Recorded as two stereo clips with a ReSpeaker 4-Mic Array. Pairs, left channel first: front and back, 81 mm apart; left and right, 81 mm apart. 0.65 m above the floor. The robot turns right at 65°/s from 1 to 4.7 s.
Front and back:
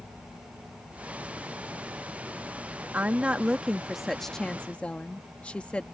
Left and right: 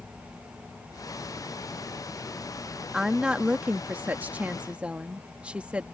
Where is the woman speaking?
165° right; by 5.8 s 50° right.